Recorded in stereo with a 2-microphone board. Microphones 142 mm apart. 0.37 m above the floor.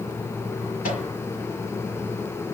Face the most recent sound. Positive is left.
turn(degrees=75)  # may be behind; listen again after turning